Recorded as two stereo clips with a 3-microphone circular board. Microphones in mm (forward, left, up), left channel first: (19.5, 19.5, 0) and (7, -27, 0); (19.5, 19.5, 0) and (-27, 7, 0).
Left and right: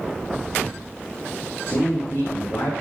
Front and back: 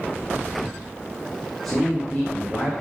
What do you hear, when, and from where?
1.6 s a man speaking: 100° left, 6 m; by 2.7 s 95° left, 6.5 m